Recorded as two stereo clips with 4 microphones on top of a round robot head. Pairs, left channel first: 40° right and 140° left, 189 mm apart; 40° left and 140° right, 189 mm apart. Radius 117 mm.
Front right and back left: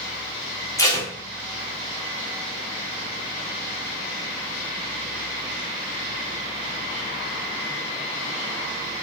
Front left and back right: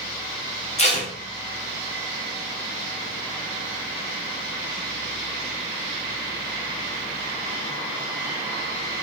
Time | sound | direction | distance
0.8 | tape being pulled | 20° left | 1.0 m